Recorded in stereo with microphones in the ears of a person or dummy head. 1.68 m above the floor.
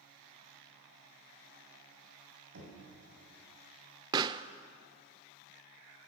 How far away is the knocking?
About 7.5 m.